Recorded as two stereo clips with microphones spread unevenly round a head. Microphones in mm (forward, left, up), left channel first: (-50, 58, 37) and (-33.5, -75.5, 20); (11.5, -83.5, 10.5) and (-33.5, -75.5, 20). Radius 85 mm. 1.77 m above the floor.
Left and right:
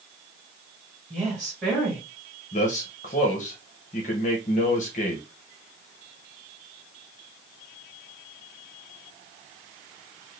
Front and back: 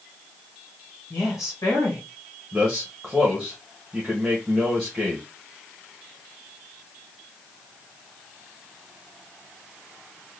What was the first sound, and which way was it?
A woman speaking, 15° left.